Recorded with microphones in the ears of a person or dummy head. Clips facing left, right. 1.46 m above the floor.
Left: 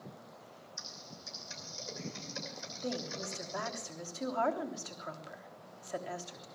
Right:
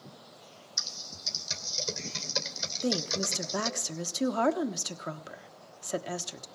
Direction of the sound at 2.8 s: 45° right (ahead or behind).